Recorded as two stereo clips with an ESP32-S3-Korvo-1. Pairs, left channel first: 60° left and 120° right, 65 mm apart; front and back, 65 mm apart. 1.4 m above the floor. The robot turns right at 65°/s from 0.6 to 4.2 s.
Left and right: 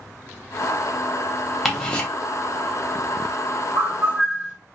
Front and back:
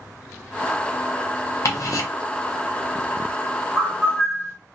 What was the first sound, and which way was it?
Ticking, 30° right.